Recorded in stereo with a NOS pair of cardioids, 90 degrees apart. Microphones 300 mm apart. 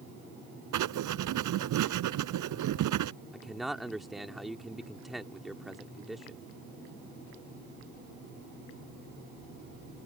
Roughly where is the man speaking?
Ahead.